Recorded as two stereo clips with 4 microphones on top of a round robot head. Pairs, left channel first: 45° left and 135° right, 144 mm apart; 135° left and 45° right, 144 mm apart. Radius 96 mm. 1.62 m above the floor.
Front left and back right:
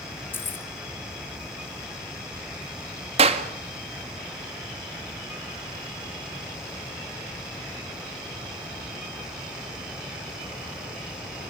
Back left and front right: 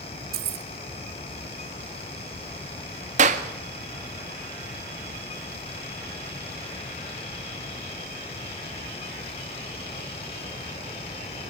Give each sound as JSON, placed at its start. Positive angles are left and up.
{"t": 0.3, "sound": "keys jangling", "azimuth_deg": -30, "distance_m": 1.1}
{"t": 3.2, "sound": "a clap", "azimuth_deg": -85, "distance_m": 1.9}